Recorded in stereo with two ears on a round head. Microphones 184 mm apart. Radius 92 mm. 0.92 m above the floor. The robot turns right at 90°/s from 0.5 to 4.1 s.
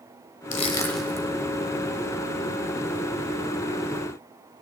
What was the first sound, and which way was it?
Crushing, 40° left (ahead or behind).